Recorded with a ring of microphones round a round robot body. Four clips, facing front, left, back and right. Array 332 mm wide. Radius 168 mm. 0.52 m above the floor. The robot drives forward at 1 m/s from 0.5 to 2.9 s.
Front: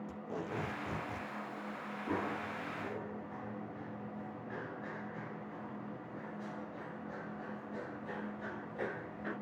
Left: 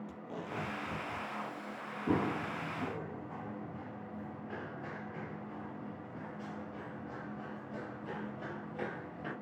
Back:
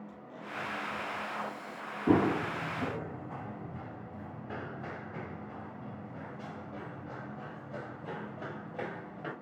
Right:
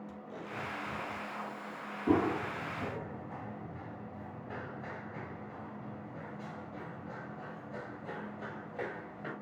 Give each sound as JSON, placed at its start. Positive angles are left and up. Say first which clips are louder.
{"t": 0.1, "sound": "tape being pulled", "louder": "left 1 dB, front 4 dB", "azimuth_deg": 20, "distance_m": 4.0}
{"t": 2.1, "sound": "running footsteps", "louder": "right 4 dB, back 12 dB", "azimuth_deg": -170, "distance_m": 0.8}